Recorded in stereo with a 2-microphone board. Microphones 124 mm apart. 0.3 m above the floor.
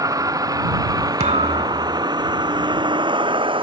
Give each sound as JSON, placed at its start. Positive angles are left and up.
{"t": 0.0, "sound": "a vehicle", "side_deg": -30}
{"t": 1.2, "sound": "a thud", "side_deg": -85}